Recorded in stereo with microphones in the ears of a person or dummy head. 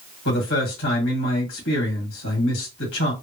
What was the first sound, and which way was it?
A man speaking, 75° left (ahead or behind).